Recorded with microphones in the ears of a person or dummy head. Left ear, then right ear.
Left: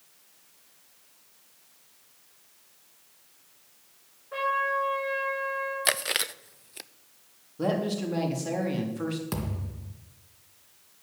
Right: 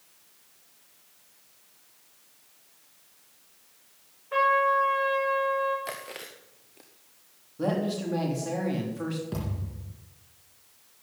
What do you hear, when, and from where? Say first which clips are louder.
4.3 s a trumpet: right 5 dB; 35° right (ahead or behind), 5 m
5.8 s chewing: left 11 dB; 60° left (ahead or behind), 0.6 m
7.6 s a woman speaking: left 1 dB; 5° left (ahead or behind), 3.5 m
9.3 s a thud: left 1 dB; 60° left (ahead or behind), 3 m